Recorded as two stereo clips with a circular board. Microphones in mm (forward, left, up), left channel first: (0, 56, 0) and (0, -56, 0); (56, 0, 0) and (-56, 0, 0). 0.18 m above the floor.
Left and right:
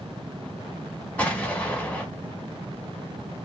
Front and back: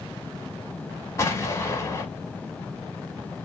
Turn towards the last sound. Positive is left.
turn(degrees=25)